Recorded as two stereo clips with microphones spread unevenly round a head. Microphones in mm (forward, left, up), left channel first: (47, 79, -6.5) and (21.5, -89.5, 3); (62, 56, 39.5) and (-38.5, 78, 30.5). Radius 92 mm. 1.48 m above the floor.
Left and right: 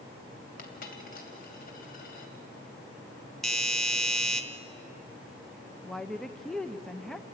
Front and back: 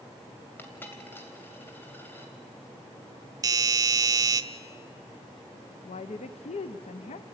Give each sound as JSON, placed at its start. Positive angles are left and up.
{"t": 0.6, "sound": "a dropped coin", "azimuth_deg": 55, "distance_m": 2.5}
{"t": 3.4, "sound": "a doorbell", "azimuth_deg": 165, "distance_m": 0.9}
{"t": 5.8, "sound": "a woman speaking", "azimuth_deg": -5, "distance_m": 0.6}